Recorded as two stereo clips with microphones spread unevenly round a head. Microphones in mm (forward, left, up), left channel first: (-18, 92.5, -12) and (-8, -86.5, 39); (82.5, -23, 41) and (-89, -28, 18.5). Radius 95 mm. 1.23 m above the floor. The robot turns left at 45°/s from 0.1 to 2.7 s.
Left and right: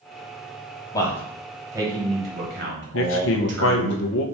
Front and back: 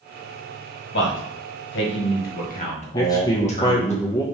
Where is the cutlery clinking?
No cutlery clinking in this recording.